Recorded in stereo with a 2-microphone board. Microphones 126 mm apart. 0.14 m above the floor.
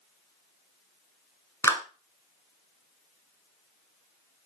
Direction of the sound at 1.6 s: 25° left (ahead or behind).